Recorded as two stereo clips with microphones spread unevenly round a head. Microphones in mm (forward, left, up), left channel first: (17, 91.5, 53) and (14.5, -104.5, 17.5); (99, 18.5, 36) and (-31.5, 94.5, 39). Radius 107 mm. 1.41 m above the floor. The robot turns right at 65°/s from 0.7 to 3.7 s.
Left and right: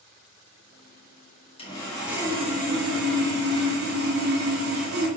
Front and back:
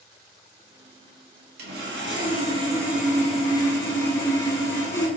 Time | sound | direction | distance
1.6 | sawing | 150° left | 1.8 m